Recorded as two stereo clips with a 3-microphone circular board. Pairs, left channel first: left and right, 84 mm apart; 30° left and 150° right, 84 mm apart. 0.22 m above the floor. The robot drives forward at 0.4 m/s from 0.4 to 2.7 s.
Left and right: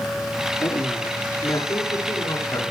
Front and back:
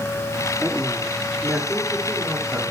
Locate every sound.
0.6 s a woman speaking: 140° left, 8.5 m; by 2.6 s 145° left, 9.5 m